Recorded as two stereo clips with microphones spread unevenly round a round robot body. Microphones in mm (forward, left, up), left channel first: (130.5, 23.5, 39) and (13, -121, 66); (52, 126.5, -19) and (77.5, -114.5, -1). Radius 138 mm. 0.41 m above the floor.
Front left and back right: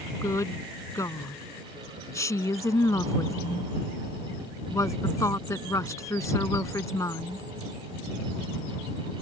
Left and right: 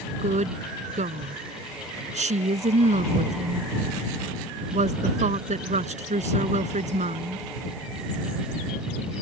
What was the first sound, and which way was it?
A woman speaking, 25° right.